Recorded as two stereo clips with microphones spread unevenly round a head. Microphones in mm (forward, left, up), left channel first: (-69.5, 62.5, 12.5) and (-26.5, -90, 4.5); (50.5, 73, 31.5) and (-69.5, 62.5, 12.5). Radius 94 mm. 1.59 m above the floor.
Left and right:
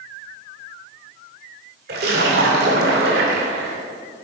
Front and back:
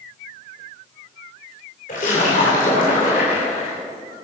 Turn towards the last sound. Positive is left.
turn(degrees=-35)